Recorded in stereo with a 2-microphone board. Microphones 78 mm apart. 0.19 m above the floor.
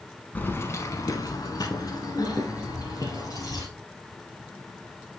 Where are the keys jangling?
25° left (ahead or behind), 1.1 m; by 3.6 s 45° left (ahead or behind), 3 m.